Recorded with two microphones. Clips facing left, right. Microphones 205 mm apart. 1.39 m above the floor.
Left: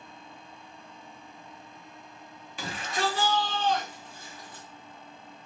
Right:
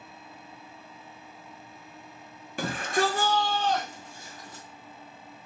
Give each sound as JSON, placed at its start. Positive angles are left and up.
{"t": 2.6, "sound": "a shout", "side_deg": -55, "distance_m": 0.8}